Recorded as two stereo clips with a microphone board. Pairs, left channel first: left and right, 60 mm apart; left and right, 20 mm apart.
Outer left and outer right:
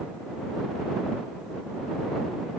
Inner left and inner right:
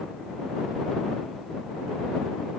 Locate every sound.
Only background noise.